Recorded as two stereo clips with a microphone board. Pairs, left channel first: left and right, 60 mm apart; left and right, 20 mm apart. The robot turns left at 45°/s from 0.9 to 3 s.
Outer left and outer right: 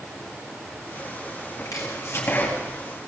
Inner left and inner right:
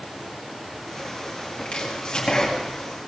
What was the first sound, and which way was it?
Chopping, 65° left.